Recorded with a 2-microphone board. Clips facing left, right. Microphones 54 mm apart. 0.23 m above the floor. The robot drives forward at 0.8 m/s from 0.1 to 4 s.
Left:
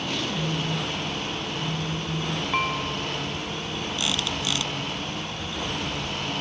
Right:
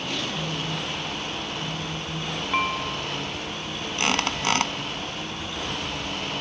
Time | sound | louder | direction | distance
0.3 | a phone buzzing | left 2 dB | centre (ahead or behind) | ?
2.5 | dishes clattering | right 2 dB | 5° right (ahead or behind) | ?
4.0 | a squeak | right 6 dB | 55° right (ahead or behind) | ?